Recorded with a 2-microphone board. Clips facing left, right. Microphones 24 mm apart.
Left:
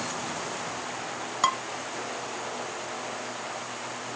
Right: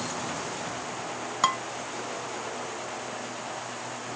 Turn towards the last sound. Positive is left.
turn(degrees=0)  # may be behind; listen again after turning